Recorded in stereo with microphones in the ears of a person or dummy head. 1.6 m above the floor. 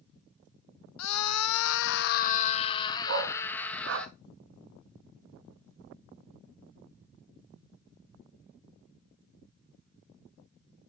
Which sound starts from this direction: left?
A scream, at 1.0 s.